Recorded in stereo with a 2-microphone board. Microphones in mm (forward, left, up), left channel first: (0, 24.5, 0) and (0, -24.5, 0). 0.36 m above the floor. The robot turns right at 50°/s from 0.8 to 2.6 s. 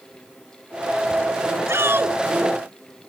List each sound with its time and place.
1.7 s a shout: 60° right (ahead or behind); by 2.2 s 40° right (ahead or behind)